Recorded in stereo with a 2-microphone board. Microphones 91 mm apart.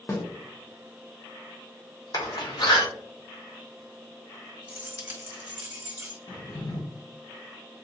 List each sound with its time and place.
0.1 s a snare drum: 30° left (ahead or behind), 0.9 m
2.1 s a door slam: 50° left (ahead or behind), 0.9 m
4.7 s keys jangling: 20° right (ahead or behind), 1.4 m
6.3 s a drawer: 50° left (ahead or behind), 1.7 m